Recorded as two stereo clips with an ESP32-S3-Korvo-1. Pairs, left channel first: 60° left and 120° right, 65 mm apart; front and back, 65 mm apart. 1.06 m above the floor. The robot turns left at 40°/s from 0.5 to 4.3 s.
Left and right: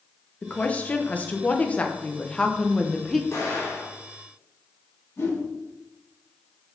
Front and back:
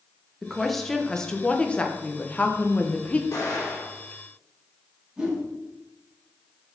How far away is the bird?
I don't hear a bird.